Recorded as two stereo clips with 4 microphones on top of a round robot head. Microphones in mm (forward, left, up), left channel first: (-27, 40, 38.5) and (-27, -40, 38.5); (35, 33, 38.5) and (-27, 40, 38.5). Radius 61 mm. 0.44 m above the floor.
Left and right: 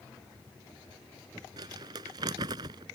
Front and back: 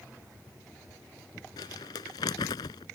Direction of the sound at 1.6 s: 40° right.